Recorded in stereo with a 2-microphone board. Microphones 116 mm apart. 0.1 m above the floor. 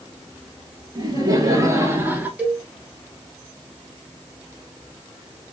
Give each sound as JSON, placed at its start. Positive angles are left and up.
{"t": 0.9, "sound": "laughter", "side_deg": -35, "distance_m": 1.9}
{"t": 2.4, "sound": "a cowbell", "side_deg": -10, "distance_m": 2.5}